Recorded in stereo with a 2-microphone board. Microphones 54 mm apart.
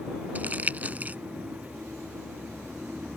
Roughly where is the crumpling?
Right.